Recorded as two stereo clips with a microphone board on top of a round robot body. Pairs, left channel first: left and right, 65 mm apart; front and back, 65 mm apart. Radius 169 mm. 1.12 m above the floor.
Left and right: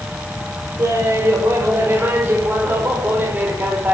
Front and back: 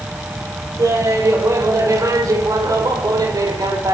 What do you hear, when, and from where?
0.8 s laughter: 145° right, 6 m; by 3.9 s 155° right, 5 m